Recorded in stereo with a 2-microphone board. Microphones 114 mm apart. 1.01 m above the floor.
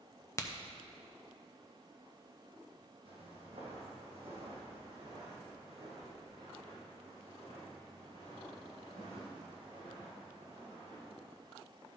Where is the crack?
25° left (ahead or behind), 0.6 m.